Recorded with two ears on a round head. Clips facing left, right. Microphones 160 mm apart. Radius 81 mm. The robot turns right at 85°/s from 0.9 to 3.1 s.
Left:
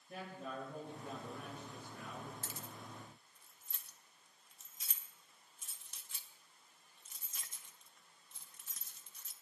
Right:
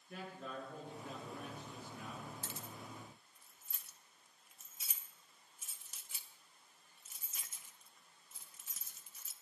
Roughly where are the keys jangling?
Left.